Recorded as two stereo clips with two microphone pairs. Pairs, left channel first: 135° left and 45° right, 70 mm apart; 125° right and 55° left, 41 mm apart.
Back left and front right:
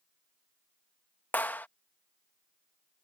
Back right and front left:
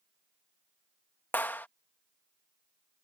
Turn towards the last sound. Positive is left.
turn(degrees=-160)